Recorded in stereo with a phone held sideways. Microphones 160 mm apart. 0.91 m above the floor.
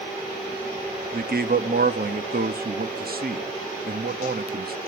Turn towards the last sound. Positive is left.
turn(degrees=-65)  # may be behind; listen again after turning